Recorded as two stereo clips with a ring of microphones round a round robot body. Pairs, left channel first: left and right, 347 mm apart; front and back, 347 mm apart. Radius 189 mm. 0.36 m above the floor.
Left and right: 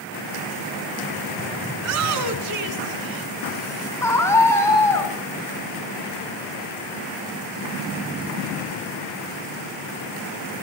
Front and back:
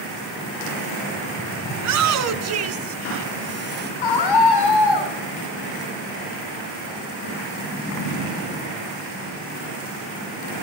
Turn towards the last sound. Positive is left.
turn(degrees=10)